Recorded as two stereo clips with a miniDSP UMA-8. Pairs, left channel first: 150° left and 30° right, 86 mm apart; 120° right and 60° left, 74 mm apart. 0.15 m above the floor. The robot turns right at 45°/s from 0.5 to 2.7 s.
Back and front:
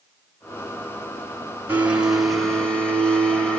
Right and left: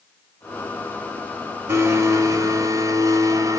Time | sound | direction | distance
1.7 | a blender | 30° left | 0.9 m